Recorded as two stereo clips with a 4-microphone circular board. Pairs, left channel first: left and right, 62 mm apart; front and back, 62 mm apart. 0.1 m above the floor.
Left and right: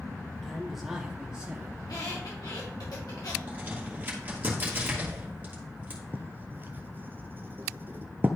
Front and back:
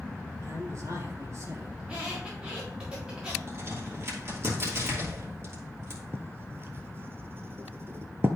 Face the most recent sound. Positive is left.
turn(degrees=-140)